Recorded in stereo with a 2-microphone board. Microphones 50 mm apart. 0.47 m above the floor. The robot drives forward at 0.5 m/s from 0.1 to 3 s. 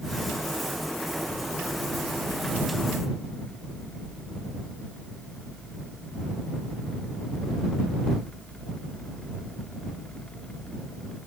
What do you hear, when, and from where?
Only background noise.